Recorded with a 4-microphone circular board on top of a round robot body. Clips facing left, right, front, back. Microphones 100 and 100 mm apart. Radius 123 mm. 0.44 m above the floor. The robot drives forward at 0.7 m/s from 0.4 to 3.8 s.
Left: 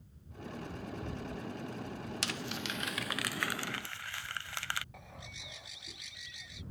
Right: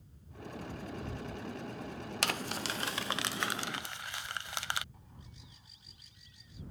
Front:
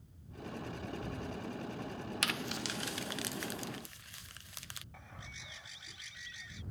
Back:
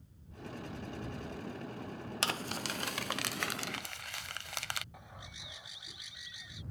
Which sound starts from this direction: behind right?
Crumpling, at 2.2 s.